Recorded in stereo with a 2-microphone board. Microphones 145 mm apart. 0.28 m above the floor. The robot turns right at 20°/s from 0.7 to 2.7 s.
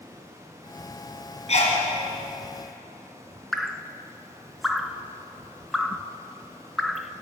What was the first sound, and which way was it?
A sneeze, 50° left (ahead or behind).